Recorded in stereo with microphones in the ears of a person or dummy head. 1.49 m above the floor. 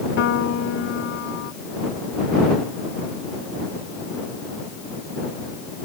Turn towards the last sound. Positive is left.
turn(degrees=65)  # may be behind; listen again after turning